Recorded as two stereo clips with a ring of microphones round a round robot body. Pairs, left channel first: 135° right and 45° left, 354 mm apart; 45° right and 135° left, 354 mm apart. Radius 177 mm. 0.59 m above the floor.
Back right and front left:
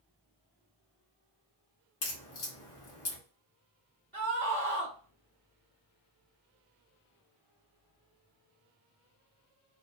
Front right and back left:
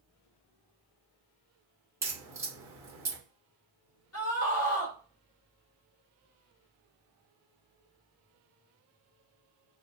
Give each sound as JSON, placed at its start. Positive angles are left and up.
{"t": 2.0, "sound": "a crack", "azimuth_deg": -150, "distance_m": 1.2}
{"t": 4.1, "sound": "a scream", "azimuth_deg": -50, "distance_m": 1.4}